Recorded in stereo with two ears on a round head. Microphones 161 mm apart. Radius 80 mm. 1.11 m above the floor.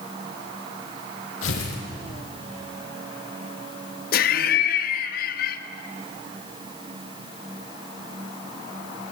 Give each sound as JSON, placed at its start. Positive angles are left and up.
{"t": 1.4, "sound": "tearing paper", "side_deg": 85, "distance_m": 7.5}
{"t": 4.1, "sound": "laughter", "side_deg": 55, "distance_m": 1.8}